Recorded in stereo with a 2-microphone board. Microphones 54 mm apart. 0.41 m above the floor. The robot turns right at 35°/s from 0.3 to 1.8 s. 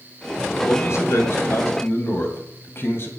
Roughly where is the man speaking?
Left.